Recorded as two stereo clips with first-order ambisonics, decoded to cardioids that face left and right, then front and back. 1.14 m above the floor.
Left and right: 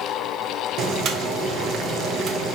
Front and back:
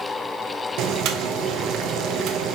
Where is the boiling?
140° right, 0.7 m.